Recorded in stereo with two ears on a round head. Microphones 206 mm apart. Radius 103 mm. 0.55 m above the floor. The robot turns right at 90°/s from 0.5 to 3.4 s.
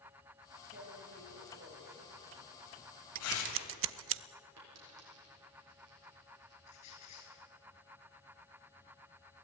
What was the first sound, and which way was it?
Tearing paper, 45° right (ahead or behind).